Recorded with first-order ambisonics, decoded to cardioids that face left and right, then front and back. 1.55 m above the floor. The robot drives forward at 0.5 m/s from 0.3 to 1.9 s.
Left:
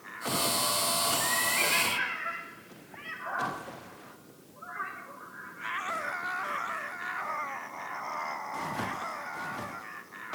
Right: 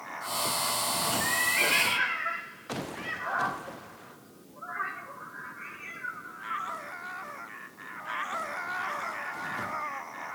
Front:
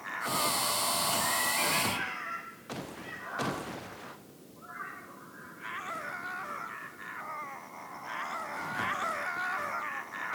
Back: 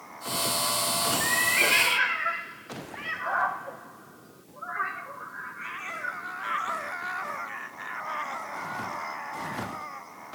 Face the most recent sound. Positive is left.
turn(degrees=-165)